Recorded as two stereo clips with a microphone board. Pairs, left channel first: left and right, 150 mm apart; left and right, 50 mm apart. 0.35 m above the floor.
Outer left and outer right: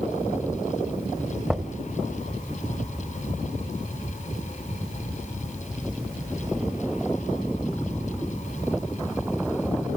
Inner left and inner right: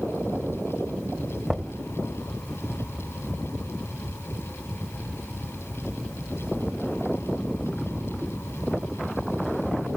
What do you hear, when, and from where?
1.5 s knocking: centre (ahead or behind), 1.5 m